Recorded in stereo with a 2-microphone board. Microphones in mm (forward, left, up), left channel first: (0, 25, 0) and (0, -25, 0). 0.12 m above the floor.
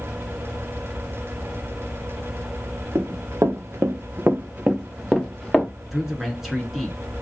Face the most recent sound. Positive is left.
turn(degrees=-5)  # may be behind; listen again after turning